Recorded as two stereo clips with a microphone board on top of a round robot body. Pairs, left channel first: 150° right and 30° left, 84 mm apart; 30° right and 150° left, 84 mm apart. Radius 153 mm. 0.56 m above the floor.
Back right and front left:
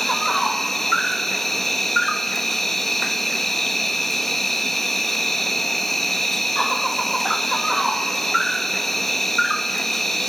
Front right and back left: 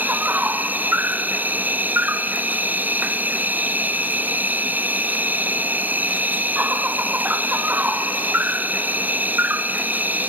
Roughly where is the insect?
Behind left.